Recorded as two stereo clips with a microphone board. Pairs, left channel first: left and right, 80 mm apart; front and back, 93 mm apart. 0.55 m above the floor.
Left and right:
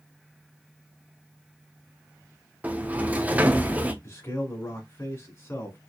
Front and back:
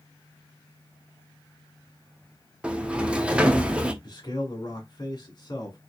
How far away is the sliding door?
About 0.7 m.